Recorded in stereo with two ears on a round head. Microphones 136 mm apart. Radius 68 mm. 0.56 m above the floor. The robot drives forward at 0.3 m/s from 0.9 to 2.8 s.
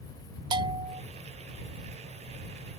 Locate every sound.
0.5 s a bell: 30° right (ahead or behind)